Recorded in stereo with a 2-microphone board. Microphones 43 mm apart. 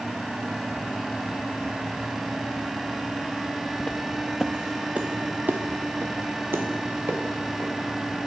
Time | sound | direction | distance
3.8 | footsteps | 25° left (ahead or behind) | 0.8 m